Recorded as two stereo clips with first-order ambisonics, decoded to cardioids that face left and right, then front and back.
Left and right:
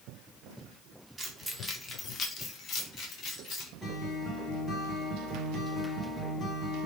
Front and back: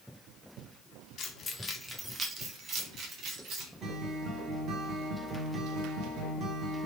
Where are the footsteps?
No footsteps in this recording.